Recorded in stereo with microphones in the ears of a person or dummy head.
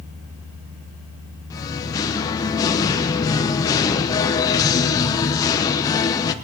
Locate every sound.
1.5 s singing: 20° left (ahead or behind), 1.0 m